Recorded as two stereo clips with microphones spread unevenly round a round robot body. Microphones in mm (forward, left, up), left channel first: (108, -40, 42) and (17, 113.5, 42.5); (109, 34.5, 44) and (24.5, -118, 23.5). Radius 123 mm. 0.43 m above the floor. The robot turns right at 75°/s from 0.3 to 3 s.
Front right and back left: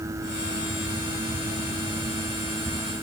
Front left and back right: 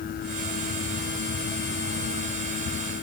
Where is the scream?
I don't hear a scream.